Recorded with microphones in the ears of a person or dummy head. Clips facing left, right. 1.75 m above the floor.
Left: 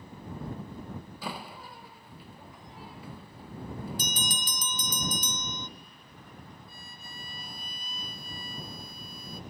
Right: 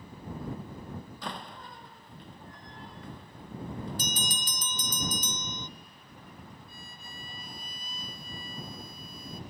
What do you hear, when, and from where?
1.2 s a door slam: 5° left (ahead or behind)
4.0 s a bell: 70° left (ahead or behind)
6.7 s a violin: 35° left (ahead or behind)